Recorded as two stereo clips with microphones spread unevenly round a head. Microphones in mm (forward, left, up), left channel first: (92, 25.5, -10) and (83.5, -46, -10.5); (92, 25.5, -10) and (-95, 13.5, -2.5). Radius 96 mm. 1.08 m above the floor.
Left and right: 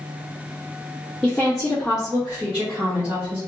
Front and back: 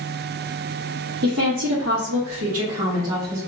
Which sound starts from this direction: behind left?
A woman speaking, at 1.2 s.